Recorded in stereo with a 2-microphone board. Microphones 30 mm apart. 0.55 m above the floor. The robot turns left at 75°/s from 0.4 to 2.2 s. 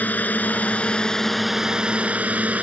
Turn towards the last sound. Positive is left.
turn(degrees=-65)